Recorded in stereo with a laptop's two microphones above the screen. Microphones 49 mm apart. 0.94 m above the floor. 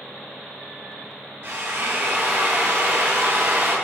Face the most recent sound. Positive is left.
turn(degrees=-55)  # may be behind; listen again after turning